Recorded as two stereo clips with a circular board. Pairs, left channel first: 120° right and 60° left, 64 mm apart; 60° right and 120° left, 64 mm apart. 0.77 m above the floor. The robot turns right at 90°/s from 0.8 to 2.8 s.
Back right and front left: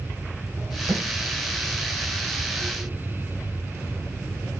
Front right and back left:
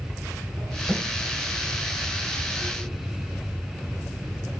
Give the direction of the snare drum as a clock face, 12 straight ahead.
11 o'clock.